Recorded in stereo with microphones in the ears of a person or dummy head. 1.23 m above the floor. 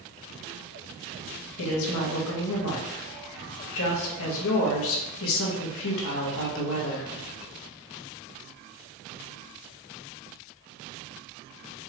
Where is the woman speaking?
75° left (ahead or behind), 1.2 m.